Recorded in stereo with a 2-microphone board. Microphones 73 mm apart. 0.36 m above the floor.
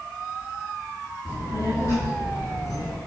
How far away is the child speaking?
About 3 m.